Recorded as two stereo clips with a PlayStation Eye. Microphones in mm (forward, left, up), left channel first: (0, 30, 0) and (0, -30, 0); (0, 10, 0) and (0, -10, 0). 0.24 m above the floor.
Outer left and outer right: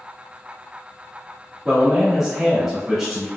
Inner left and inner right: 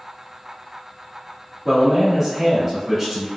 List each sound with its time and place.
1.6 s a man speaking: 5° right (ahead or behind), 0.9 m